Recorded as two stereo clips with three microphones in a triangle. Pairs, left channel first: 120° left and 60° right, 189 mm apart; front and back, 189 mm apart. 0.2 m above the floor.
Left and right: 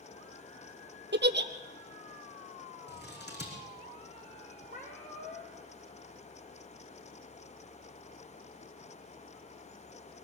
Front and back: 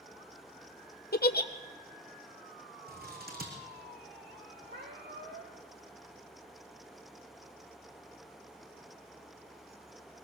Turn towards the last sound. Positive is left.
turn(degrees=165)